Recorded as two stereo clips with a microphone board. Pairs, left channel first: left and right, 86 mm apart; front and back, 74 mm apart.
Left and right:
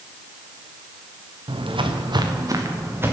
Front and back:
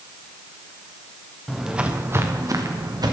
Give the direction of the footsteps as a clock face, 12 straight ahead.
3 o'clock.